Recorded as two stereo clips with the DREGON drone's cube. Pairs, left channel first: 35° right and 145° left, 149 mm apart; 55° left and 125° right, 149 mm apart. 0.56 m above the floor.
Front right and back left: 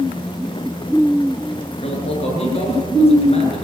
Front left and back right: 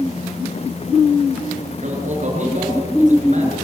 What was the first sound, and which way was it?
A man speaking, 85° right.